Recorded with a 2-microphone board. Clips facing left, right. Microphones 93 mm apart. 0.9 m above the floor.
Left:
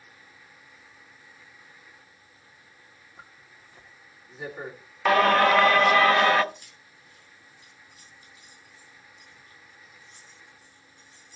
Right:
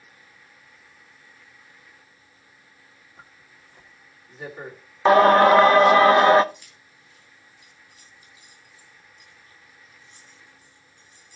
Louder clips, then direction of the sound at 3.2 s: Even; 5° left (ahead or behind).